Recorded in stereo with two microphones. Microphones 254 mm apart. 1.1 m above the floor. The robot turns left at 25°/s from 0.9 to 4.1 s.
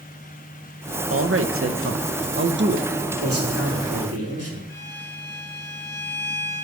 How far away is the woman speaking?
About 0.7 m.